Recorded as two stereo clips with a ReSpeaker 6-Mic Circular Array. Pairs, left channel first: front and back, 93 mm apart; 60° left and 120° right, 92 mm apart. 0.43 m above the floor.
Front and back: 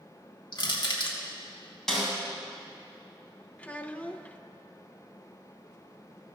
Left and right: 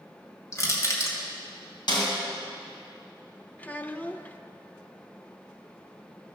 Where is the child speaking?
35° left, 0.5 m.